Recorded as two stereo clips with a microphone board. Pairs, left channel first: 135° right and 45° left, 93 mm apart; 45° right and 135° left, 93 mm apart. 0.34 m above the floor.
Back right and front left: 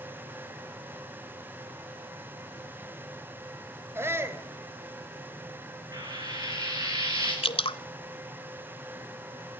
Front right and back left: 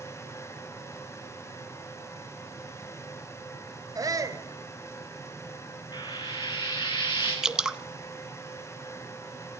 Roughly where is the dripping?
Behind right.